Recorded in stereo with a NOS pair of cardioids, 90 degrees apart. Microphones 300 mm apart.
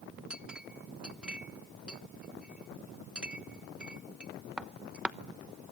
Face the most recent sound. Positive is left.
turn(degrees=-5)